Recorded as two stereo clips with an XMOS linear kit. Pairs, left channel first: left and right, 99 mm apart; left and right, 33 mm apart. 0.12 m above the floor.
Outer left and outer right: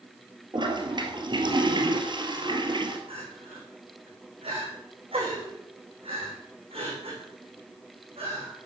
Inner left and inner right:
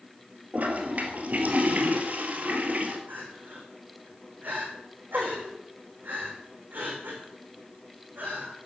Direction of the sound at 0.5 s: 50° right (ahead or behind).